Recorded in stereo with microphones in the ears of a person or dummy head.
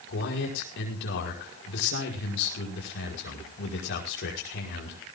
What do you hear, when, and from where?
0.1 s a man speaking: 70° left (ahead or behind), 5.5 m